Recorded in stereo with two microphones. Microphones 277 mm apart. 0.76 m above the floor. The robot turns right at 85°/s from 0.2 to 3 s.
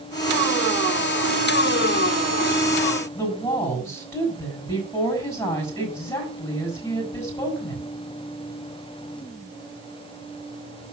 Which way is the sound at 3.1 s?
10° left (ahead or behind).